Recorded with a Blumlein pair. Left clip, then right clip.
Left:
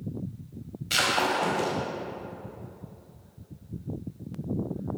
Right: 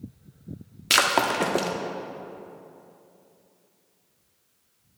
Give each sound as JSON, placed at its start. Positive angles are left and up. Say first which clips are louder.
{"t": 0.9, "sound": "breaking glass", "louder": "right 4 dB", "azimuth_deg": -35, "distance_m": 1.3}